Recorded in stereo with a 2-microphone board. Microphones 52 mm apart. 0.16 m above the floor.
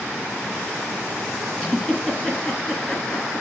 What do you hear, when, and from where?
1.6 s a giggle: 15° left (ahead or behind), 2.5 m